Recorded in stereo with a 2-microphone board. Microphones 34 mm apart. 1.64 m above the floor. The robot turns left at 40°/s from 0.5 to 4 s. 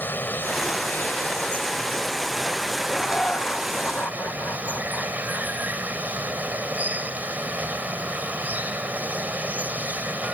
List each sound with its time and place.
0.0 s running water: 85° left; by 10.3 s 55° right
2.9 s laughter: 160° left; by 5.5 s 110° left